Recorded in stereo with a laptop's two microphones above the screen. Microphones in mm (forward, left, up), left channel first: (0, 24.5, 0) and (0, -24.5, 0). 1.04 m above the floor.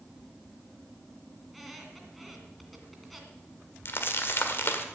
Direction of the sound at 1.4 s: Centre (ahead or behind).